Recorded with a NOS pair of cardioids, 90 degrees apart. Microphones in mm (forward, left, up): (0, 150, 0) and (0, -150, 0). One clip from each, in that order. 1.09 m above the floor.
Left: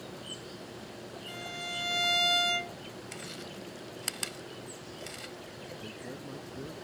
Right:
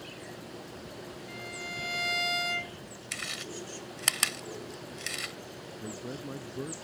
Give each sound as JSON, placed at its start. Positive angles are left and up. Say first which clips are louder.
{"t": 1.3, "sound": "a violin", "louder": "left 2 dB", "azimuth_deg": 20}
{"t": 3.1, "sound": "chewing", "louder": "right 9 dB", "azimuth_deg": -60}
{"t": 5.8, "sound": "a man speaking", "louder": "right 2 dB", "azimuth_deg": -35}